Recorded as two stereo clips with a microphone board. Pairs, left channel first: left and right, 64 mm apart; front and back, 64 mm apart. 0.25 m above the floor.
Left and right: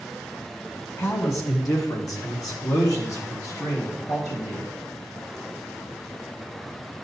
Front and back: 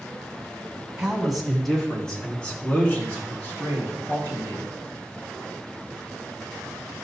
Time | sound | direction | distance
1.0 | a man speaking | 100° left | 1.9 m